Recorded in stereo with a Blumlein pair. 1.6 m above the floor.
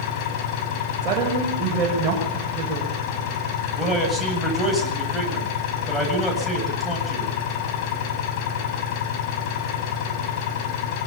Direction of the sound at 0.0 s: 45° left.